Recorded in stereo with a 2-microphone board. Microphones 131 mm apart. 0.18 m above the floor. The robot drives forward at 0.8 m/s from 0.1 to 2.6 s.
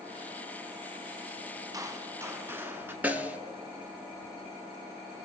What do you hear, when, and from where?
1.7 s a gunshot: 25° right (ahead or behind), 0.7 m; by 2.9 s 15° right (ahead or behind), 1.1 m
3.0 s a snare drum: 10° right (ahead or behind), 0.7 m